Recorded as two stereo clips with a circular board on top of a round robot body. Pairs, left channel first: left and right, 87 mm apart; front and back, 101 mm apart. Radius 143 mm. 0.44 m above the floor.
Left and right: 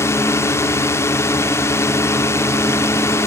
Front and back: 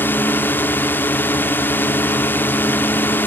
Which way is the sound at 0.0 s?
60° left.